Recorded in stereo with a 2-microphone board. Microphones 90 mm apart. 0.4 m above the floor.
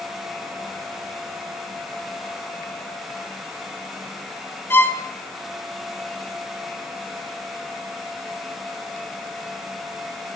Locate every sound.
4.7 s a violin: 25° left (ahead or behind), 0.9 m